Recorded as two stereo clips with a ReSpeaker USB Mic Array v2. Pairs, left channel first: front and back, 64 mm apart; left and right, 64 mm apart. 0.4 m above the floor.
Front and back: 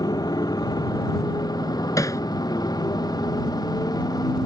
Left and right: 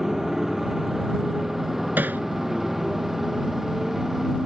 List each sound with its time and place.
0.0 s a motorcycle: straight ahead
2.0 s hammering: 30° right